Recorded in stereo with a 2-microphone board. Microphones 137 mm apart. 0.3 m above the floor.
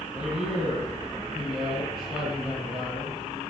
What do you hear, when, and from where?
0.1 s a man speaking: 5° right (ahead or behind), 7.5 m